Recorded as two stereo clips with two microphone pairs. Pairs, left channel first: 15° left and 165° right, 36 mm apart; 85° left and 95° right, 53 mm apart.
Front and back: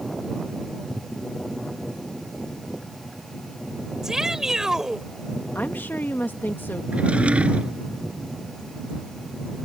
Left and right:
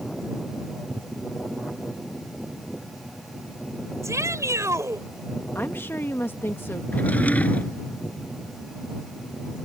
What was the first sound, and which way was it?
A shout, 85° right.